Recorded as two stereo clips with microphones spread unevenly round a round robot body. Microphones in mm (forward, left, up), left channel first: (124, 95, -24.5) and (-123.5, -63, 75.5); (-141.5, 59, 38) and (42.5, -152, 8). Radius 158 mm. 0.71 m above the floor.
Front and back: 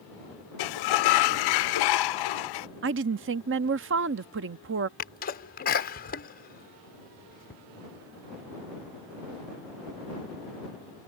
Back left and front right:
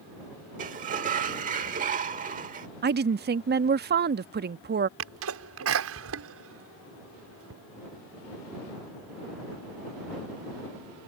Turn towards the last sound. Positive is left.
turn(degrees=-15)